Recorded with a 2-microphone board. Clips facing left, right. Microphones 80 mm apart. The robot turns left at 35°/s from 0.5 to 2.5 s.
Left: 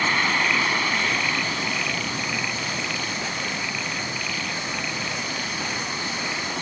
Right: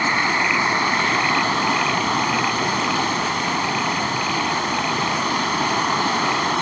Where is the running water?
20° right; by 6.6 s 90° right.